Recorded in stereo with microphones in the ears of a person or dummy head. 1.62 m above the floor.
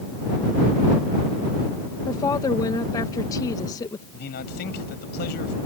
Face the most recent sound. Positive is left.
turn(degrees=65)  # may be behind; listen again after turning